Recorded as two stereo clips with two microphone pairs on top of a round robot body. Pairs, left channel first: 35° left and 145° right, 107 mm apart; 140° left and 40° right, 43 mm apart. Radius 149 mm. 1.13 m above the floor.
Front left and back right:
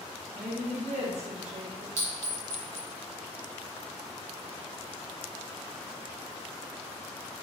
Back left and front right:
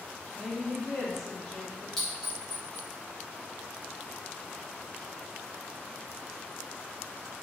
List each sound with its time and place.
0.3 s a woman speaking: 135° right, 1.5 m
2.0 s a clink: 145° right, 1.2 m